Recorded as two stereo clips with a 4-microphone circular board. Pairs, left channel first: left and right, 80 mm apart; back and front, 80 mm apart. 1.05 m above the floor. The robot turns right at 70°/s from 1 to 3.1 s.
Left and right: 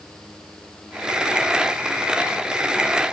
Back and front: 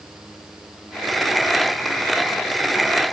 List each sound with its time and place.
Only background noise.